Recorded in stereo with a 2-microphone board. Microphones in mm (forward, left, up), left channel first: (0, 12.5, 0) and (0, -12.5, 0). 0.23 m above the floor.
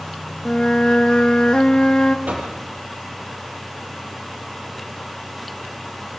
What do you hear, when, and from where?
0.5 s a flute: 35° left (ahead or behind), 0.8 m
2.3 s knocking: 70° right (ahead or behind), 4.5 m